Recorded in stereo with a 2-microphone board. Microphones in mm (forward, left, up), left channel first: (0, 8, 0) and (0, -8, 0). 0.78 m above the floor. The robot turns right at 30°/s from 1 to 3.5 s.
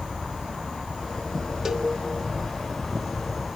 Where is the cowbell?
30° right (ahead or behind), 1.4 m; by 1.9 s 35° right (ahead or behind), 1.4 m.